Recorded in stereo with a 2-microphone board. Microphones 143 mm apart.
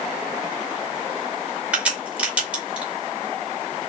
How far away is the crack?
About 2 m.